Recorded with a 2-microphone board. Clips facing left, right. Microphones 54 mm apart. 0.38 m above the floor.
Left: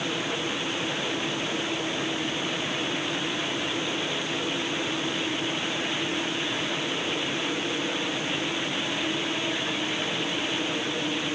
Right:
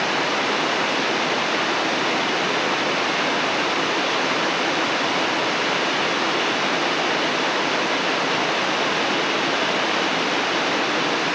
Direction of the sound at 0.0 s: 85° right.